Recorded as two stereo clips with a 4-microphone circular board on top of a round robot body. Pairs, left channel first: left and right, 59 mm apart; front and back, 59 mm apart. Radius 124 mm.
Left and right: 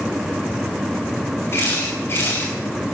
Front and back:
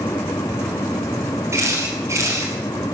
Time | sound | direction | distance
1.5 | a camera shutter | 140° left | 5.5 m